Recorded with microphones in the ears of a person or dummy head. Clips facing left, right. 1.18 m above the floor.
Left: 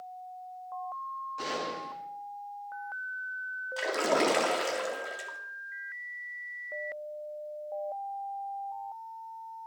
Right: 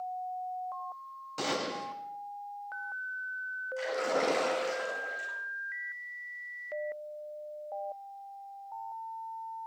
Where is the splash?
70° left (ahead or behind), 3 m.